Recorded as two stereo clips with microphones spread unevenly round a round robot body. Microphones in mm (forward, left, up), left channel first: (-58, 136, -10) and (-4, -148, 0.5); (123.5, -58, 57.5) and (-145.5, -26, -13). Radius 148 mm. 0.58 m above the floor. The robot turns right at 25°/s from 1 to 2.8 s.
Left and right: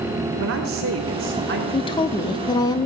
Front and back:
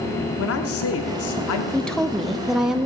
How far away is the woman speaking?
About 0.7 m.